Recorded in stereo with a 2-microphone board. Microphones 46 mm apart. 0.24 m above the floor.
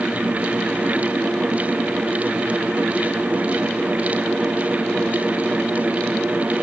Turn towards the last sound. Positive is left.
No sound to turn to.